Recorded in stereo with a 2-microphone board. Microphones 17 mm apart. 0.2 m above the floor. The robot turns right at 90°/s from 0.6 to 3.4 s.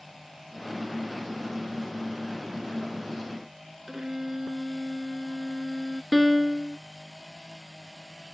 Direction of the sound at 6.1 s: 10° right (ahead or behind).